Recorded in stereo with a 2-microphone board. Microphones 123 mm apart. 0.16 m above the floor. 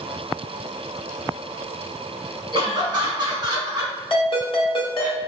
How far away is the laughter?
About 1.9 m.